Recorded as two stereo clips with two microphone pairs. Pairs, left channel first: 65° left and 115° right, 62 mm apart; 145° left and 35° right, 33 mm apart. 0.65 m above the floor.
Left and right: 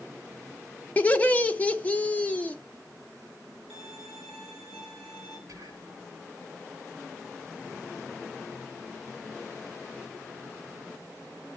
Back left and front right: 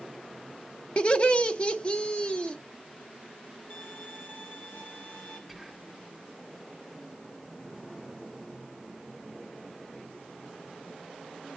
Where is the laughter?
115° left, 0.8 m.